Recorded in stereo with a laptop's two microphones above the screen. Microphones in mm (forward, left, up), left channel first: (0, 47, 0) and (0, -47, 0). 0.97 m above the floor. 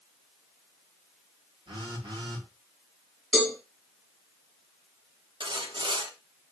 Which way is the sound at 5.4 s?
70° right (ahead or behind).